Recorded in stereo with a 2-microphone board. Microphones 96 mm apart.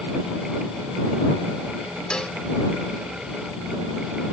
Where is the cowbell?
10° left (ahead or behind).